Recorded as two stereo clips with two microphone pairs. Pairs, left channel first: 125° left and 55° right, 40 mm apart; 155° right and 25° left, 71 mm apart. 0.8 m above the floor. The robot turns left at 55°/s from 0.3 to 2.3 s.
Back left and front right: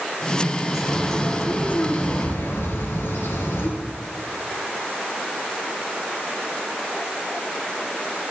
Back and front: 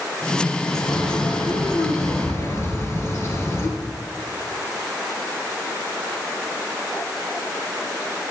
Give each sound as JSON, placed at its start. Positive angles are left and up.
{"t": 0.7, "sound": "a bird", "azimuth_deg": -120, "distance_m": 3.0}